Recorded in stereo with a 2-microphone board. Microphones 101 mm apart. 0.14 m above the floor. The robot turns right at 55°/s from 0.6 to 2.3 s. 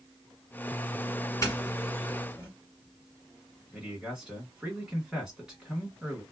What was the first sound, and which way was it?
A doorbell, 30° left (ahead or behind).